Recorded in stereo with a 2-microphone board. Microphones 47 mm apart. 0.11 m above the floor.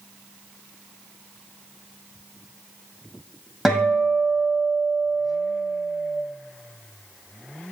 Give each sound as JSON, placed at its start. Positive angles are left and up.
{"t": 3.6, "sound": "a guitar", "side_deg": -10, "distance_m": 1.4}